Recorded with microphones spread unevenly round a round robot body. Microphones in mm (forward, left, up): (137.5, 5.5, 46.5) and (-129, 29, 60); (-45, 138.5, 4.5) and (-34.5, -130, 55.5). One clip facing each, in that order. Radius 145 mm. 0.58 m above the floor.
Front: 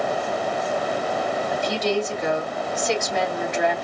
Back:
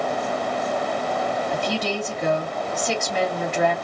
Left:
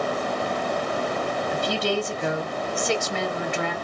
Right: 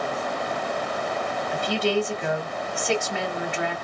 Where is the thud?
I don't hear a thud.